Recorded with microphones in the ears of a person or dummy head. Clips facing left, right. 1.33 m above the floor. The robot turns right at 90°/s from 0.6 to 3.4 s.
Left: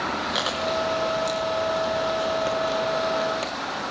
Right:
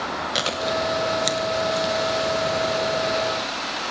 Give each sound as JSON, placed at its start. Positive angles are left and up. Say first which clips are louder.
{"t": 0.3, "sound": "chewing", "louder": "right 2 dB", "side_deg": -30, "distance_m": 0.9}